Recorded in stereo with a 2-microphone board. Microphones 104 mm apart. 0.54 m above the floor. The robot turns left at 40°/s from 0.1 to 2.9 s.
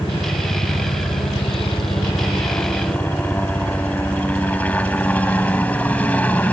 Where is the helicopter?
125° left; by 6.5 s 15° left.